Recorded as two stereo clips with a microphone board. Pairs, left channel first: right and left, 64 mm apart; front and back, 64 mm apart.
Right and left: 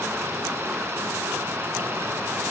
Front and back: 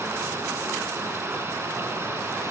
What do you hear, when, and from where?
0.0 s running water: 140° left, 0.9 m